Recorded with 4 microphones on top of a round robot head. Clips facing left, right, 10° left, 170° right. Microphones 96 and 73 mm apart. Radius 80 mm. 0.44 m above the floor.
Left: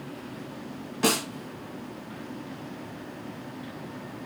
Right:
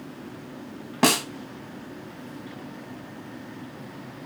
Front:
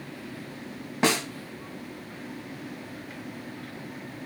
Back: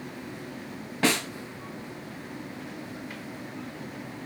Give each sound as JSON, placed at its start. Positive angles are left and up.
{"t": 1.0, "sound": "a snare drum", "azimuth_deg": -65, "distance_m": 1.4}